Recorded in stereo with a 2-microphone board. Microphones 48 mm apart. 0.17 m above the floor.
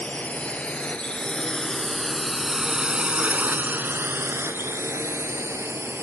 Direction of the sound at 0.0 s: 35° left (ahead or behind).